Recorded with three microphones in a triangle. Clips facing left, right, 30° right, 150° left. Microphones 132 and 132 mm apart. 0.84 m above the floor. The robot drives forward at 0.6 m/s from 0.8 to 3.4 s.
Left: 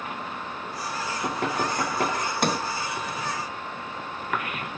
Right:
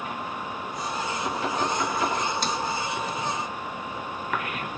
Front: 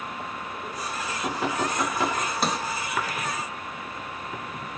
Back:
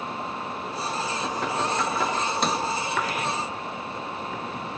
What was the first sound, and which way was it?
Knocking, 55° left.